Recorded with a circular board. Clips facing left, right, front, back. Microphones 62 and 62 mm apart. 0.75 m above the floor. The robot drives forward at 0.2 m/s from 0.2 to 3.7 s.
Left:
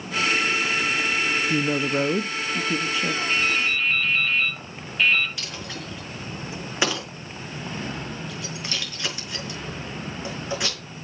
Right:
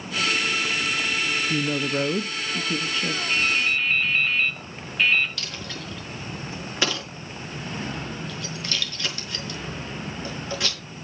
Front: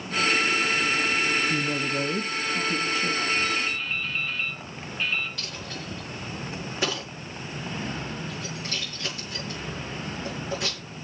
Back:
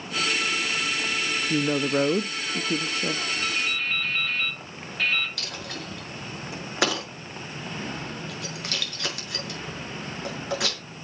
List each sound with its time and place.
1.5 s a woman speaking: 155° left, 0.5 m; by 3.2 s 170° left, 0.8 m
3.3 s dripping: 175° right, 5 m
5.4 s a dropped coin: 160° left, 5.5 m